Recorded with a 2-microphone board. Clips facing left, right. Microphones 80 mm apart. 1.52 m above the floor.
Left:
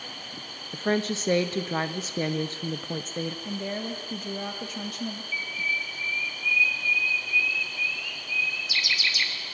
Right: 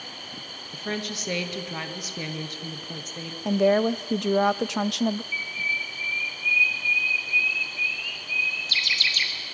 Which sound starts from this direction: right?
A woman speaking, at 3.5 s.